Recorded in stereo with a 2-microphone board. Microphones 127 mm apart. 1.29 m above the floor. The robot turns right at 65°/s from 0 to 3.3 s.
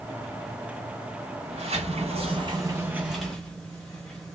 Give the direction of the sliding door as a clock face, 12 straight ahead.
4 o'clock.